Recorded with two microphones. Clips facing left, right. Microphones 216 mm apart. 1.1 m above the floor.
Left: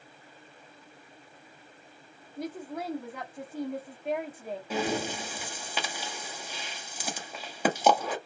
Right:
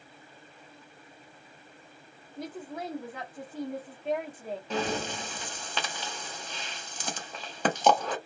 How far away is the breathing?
About 0.7 m.